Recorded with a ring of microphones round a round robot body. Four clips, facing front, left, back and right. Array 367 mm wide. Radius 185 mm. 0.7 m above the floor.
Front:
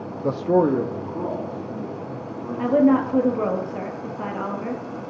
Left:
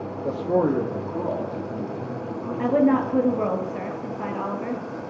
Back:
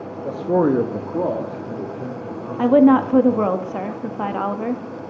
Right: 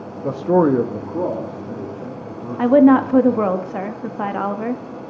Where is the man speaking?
30° right, 0.9 m; by 3.5 s 160° right, 5 m.